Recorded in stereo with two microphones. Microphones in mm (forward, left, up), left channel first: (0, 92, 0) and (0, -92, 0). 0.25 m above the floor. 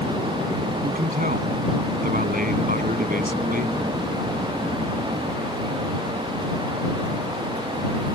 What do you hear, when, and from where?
0.8 s a man speaking: 50° right (ahead or behind)